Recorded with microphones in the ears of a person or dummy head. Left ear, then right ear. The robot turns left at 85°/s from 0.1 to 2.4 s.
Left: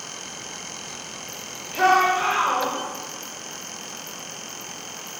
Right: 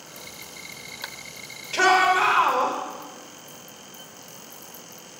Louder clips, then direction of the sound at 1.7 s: Even; 80° right.